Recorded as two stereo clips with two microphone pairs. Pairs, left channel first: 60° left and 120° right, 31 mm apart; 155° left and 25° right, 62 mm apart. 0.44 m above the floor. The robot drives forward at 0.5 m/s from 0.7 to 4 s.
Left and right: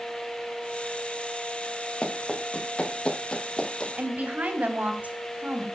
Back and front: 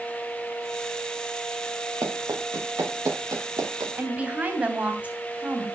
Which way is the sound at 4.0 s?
90° right.